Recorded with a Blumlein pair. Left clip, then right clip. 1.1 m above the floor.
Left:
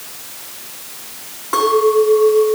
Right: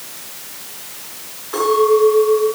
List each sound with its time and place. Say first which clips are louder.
1.5 s a clink: left 1 dB; 60° left, 6.5 m